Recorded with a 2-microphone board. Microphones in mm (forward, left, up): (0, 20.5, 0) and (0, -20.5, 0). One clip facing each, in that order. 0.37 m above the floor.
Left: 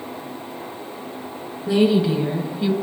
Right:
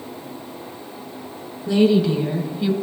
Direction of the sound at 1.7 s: 15° left (ahead or behind).